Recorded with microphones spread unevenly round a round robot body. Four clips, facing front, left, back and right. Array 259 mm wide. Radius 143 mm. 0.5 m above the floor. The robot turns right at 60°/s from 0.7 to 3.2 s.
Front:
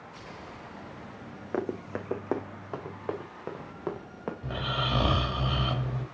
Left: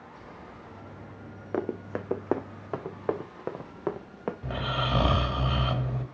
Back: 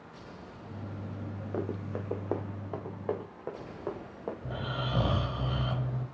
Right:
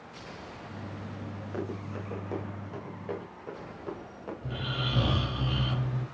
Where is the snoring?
50° left, 2.5 m.